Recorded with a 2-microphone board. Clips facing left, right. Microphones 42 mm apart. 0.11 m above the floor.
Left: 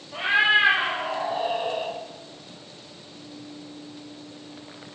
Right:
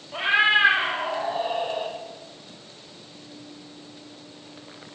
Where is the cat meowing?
20° right (ahead or behind), 1.3 m; by 1.9 s 5° right (ahead or behind), 2 m.